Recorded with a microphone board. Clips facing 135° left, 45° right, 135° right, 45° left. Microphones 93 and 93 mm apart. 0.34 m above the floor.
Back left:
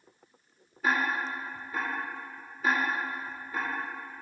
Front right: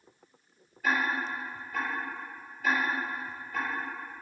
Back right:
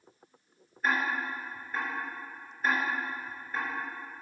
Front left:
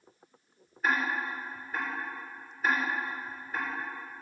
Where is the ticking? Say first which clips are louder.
Back left 1 dB, even; 125° left, 3 m.